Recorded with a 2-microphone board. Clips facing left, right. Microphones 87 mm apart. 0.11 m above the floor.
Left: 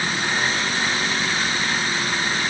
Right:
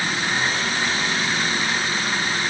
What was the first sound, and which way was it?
Only background noise.